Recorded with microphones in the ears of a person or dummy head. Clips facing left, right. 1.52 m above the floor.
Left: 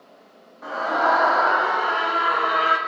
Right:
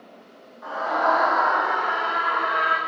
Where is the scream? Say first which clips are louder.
Left 1 dB; 35° left (ahead or behind), 2.5 m; by 2.8 s 45° left (ahead or behind), 1.4 m.